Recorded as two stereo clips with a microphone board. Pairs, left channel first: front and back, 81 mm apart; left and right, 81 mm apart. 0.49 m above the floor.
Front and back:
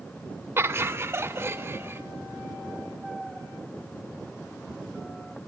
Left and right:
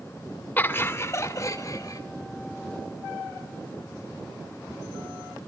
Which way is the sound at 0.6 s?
145° left.